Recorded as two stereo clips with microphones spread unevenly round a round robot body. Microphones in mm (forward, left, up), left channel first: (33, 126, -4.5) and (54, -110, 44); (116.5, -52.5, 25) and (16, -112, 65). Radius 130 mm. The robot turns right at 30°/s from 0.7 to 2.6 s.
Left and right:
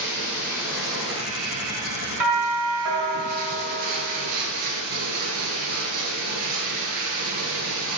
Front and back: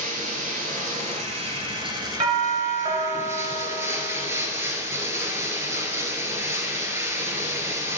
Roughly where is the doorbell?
Right.